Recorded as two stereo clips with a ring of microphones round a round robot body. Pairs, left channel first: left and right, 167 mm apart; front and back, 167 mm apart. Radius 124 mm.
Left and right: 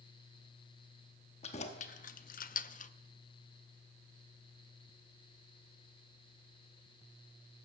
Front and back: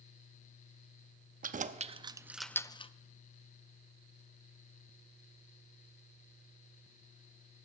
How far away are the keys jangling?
About 0.8 m.